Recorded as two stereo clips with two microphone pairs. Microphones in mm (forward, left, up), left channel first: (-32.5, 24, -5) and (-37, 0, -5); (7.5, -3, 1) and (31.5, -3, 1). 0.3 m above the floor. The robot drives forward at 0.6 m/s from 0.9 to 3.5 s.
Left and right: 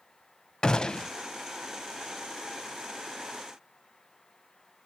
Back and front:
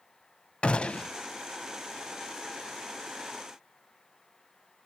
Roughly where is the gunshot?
Behind left.